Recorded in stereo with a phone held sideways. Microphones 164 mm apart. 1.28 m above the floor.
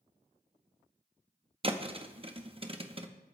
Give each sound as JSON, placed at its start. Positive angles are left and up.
{"t": 1.6, "sound": "a thud", "side_deg": -35, "distance_m": 0.8}